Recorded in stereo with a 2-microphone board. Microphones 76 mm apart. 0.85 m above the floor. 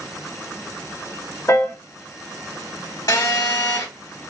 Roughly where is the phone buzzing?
Left.